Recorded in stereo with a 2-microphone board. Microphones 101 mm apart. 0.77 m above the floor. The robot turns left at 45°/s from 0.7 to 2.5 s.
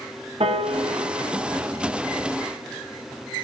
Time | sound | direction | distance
0.4 | a piano | 65° right (ahead or behind) | 1.3 m